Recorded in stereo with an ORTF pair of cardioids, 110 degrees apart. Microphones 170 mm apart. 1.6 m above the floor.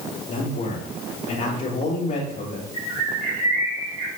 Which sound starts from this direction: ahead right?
A bird, at 2.7 s.